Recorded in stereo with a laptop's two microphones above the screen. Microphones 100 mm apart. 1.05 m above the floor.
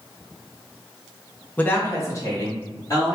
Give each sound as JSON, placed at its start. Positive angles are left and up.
{"t": 1.6, "sound": "a woman speaking", "side_deg": 15, "distance_m": 0.6}